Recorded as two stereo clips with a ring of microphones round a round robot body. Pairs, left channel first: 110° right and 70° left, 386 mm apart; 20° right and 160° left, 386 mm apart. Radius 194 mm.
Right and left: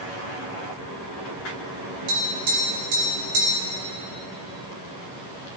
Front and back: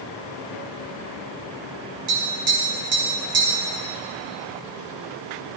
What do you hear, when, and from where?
2.1 s tapping: 95° left, 4 m